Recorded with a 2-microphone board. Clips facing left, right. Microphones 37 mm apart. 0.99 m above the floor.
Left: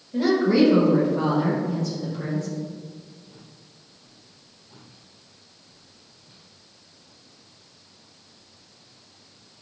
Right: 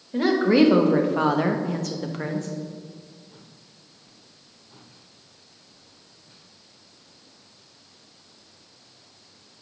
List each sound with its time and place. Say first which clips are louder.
0.1 s a woman speaking: right 1 dB; 35° right (ahead or behind), 1.4 m; by 2.5 s 50° right (ahead or behind), 1.1 m